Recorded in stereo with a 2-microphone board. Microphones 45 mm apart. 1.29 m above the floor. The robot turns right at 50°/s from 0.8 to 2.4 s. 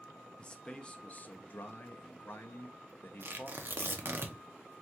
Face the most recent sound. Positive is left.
turn(degrees=-50)  # may be behind; listen again after turning